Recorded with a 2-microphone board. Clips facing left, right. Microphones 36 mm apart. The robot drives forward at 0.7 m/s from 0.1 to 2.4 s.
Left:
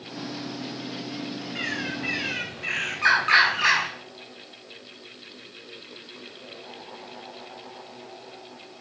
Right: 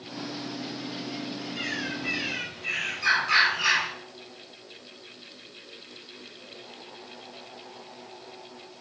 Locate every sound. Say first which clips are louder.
1.6 s a bird: left 3 dB; 45° left (ahead or behind), 4.5 m; by 3.9 s 50° left (ahead or behind), 4 m